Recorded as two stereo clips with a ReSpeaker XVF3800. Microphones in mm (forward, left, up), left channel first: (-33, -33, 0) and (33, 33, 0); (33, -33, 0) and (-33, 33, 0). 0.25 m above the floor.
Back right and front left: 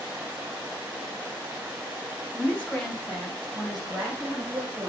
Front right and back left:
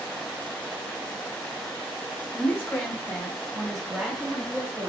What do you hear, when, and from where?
2.3 s a woman speaking: 80° right, 1.6 m; by 4.9 s 100° left, 1.5 m